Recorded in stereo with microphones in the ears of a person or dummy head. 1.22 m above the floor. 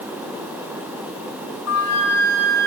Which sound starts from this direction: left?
A flute, at 1.7 s.